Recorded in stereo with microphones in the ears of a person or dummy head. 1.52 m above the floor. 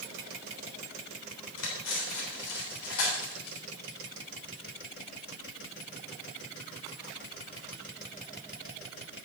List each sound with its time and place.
1.6 s cutlery clinking: 80° left, 3.5 m